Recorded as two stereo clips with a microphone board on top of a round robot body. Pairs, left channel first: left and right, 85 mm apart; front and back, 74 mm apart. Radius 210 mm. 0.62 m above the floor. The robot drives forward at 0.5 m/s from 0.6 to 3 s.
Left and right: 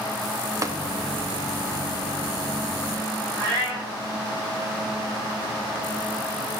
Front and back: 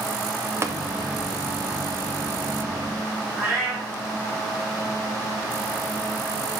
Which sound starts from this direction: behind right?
Tapping, at 0.6 s.